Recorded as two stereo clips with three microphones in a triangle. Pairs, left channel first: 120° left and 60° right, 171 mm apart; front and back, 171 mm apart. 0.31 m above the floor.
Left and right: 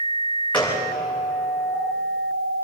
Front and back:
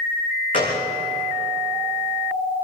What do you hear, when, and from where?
0.5 s a gunshot: 40° left, 7 m